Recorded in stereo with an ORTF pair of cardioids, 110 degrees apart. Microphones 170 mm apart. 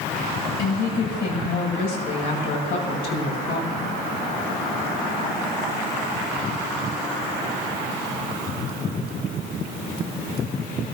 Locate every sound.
0.6 s a woman speaking: 65° left, 7 m; by 4.0 s 80° left, 7 m